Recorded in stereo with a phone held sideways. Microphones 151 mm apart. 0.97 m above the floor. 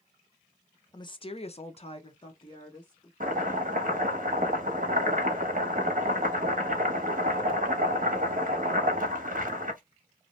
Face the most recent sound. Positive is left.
turn(degrees=-65)  # may be behind; listen again after turning